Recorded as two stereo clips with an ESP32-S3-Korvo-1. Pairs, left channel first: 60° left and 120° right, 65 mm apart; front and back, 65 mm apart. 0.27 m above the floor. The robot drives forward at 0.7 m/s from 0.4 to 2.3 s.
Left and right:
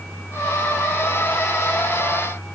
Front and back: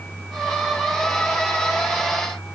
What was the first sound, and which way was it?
Only background noise.